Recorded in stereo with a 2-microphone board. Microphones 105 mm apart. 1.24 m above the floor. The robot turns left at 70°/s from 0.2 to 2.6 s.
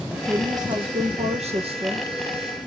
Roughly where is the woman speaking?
Ahead.